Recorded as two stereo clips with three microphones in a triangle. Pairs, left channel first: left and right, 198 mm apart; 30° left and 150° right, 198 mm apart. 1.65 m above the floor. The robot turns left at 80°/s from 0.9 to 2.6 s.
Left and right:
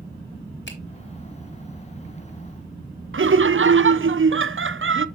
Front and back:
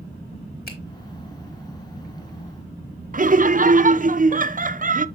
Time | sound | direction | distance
0.7 | a finger snap | 65° left | 2.5 m
3.1 | laughter | 100° right | 0.6 m